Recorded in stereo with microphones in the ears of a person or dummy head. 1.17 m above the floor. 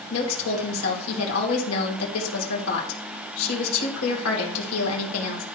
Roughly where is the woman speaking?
Left.